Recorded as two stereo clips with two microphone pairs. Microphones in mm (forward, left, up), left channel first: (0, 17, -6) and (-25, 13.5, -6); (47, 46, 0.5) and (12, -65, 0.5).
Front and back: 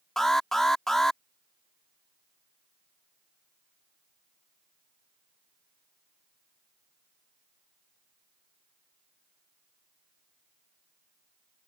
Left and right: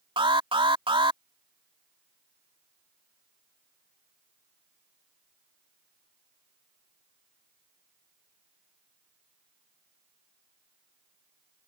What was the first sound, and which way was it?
An alarm, 65° right.